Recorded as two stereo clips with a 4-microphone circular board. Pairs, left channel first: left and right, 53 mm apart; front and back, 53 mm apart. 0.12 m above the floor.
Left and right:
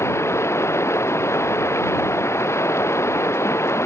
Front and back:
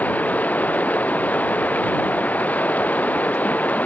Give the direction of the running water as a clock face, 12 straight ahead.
10 o'clock.